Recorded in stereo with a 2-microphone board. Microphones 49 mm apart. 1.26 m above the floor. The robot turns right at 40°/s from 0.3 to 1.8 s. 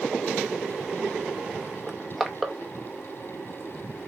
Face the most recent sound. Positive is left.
turn(degrees=0)  # may be behind; listen again after turning